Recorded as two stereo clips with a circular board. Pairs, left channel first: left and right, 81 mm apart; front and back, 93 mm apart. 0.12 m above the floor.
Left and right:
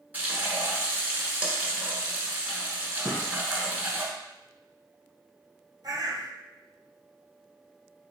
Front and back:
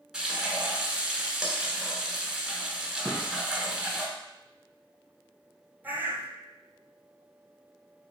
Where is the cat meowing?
No cat meowing in this recording.